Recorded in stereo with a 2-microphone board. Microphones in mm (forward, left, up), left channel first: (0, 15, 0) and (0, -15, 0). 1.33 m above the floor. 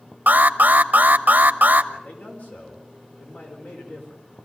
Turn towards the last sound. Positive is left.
turn(degrees=85)